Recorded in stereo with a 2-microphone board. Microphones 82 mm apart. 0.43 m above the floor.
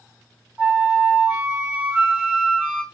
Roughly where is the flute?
Centre.